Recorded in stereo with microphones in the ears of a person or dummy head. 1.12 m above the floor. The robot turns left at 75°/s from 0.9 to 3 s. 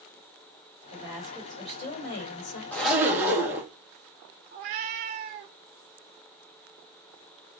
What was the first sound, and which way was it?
A woman speaking, 155° right.